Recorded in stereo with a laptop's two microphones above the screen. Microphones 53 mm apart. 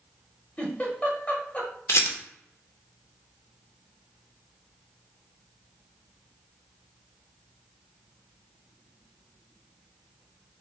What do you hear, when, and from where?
0.6 s a giggle: 25° left (ahead or behind), 0.8 m
1.9 s a rattle: 60° left (ahead or behind), 0.7 m